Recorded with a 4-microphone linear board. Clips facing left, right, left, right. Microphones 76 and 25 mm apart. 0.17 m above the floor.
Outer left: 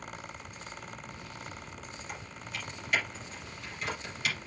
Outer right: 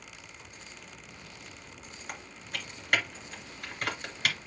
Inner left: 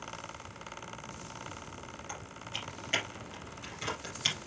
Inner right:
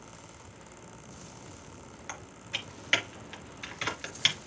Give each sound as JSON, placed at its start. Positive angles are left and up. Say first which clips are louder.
{"t": 2.1, "sound": "typing on a keyboard", "louder": "outer right 3 dB, inner right 5 dB", "side_deg": -55, "distance_m": 2.5}